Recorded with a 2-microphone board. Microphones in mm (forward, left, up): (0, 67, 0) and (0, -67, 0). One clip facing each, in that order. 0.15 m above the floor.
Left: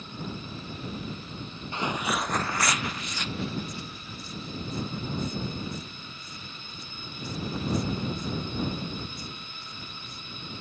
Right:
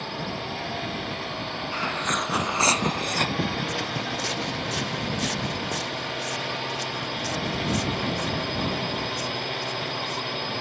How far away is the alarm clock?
No alarm clock in this recording.